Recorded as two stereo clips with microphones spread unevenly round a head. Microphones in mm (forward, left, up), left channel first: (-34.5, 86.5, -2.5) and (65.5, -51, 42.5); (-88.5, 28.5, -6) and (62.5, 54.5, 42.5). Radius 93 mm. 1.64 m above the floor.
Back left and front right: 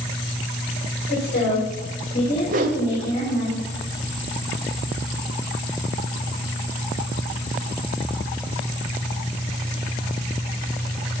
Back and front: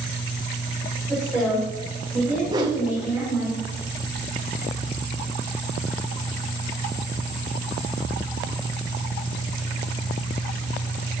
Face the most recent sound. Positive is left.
turn(degrees=-40)